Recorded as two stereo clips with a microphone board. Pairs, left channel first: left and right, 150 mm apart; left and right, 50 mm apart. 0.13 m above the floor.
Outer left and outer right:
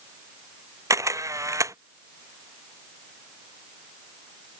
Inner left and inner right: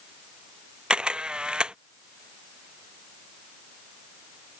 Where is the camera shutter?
20° right (ahead or behind).